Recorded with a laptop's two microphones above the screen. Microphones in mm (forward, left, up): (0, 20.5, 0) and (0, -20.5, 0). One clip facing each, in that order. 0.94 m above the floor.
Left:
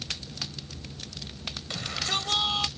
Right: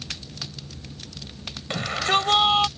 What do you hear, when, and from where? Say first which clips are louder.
1.7 s a shout: right 9 dB; 40° right (ahead or behind)